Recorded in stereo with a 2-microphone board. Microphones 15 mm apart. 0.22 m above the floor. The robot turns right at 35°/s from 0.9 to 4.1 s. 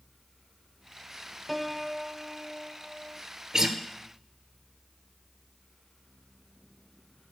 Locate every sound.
1.5 s a piano: straight behind, 0.5 m; by 3.2 s 120° right, 0.5 m
3.5 s a guitar: 40° right (ahead or behind), 1.7 m; by 3.8 s 45° right (ahead or behind), 1.7 m